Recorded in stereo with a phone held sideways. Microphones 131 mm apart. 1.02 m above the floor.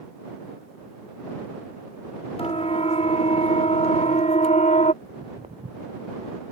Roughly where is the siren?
Left.